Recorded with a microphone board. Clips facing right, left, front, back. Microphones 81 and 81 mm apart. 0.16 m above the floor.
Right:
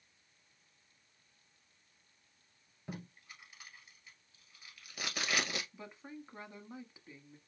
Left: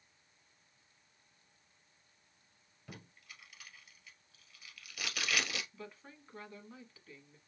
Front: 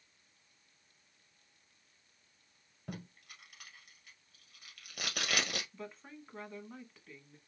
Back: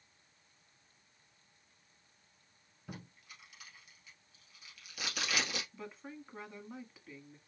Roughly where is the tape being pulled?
Ahead right.